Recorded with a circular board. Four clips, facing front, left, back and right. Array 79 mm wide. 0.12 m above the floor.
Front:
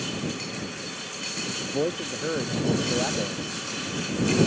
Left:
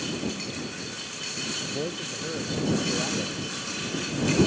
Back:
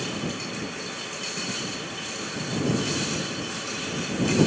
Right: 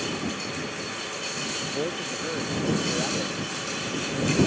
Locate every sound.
1.7 s a man speaking: 10° right